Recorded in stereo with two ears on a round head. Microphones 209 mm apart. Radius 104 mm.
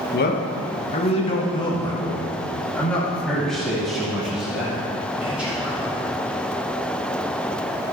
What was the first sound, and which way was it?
A man speaking, 45° left (ahead or behind).